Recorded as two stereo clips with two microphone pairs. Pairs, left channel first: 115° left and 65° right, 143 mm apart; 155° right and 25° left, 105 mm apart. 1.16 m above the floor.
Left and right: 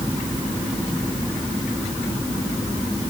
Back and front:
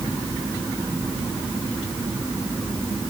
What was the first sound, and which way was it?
Only background noise.